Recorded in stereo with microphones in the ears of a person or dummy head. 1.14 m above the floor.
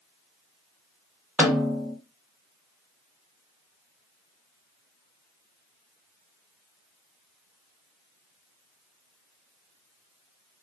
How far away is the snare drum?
About 0.7 m.